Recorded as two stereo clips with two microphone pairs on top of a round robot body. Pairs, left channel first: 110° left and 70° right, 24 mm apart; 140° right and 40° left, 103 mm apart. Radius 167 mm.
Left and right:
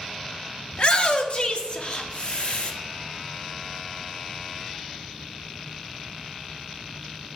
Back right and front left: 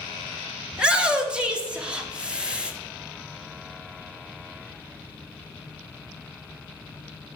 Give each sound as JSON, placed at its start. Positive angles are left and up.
{"t": 0.7, "sound": "a shout", "azimuth_deg": 105, "distance_m": 1.7}